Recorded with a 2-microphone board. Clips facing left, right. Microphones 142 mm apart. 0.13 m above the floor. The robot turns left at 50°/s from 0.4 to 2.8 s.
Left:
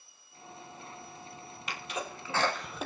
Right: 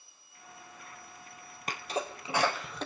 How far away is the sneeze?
About 3 m.